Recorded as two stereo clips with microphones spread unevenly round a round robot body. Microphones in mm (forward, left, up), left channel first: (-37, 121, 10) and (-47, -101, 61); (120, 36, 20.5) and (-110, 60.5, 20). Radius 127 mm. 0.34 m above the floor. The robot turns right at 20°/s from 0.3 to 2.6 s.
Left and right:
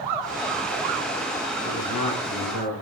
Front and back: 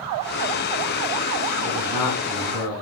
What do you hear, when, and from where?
1.6 s a man speaking: 30° left, 1.5 m; by 2.8 s 50° left, 1.5 m